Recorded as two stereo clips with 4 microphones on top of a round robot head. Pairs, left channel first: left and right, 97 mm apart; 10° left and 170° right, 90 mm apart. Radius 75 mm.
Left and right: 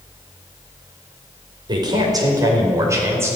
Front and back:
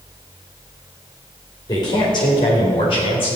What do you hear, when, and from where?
1.7 s a man speaking: 45° right, 4.5 m; by 3.4 s 25° right, 4.5 m